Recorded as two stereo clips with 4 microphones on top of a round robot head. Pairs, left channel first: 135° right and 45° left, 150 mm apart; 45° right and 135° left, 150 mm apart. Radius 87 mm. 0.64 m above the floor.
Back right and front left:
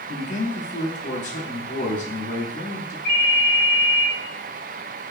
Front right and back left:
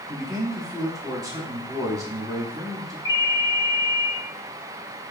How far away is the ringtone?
About 1.8 m.